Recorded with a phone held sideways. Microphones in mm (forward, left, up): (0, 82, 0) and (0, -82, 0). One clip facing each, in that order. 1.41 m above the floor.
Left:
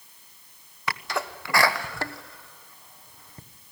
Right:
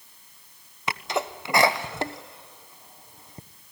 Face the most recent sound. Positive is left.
turn(degrees=-20)  # may be behind; listen again after turning